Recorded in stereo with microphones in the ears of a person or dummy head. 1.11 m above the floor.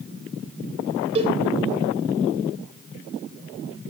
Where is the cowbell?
35° right (ahead or behind), 3.5 m.